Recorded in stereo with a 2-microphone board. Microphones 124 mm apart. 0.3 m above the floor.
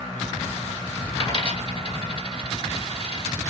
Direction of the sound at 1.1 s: 40° left (ahead or behind).